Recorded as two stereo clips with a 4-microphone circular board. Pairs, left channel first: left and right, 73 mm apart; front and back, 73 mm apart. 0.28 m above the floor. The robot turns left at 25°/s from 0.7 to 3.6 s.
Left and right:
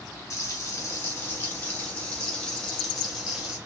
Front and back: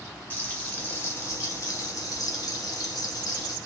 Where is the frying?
65° left, 2.0 m; by 3.6 s 10° right, 2.0 m.